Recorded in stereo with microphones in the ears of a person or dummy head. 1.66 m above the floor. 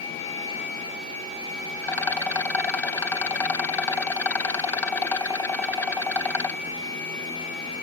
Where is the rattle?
15° left (ahead or behind).